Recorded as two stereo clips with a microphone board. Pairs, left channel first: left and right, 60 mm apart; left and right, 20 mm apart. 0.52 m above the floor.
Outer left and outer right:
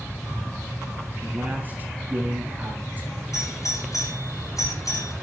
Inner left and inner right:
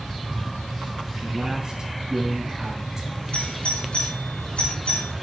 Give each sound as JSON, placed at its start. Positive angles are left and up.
{"t": 1.2, "sound": "a man speaking", "side_deg": -30, "distance_m": 3.0}
{"t": 3.3, "sound": "a doorbell", "side_deg": 65, "distance_m": 5.0}